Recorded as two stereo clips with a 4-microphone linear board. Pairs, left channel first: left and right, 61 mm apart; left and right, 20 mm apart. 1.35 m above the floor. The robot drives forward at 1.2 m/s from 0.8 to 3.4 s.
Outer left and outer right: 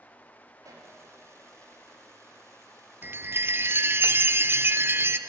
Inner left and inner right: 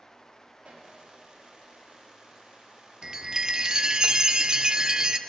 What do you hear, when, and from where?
0.6 s a pop: 65° right (ahead or behind), 2.5 m
3.0 s a chime: 30° right (ahead or behind), 0.6 m; by 5.2 s 35° right (ahead or behind), 0.5 m